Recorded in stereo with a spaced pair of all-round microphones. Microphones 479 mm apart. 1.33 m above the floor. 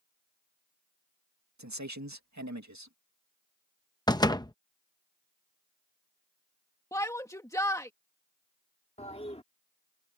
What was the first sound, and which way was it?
A man speaking, 35° right (ahead or behind).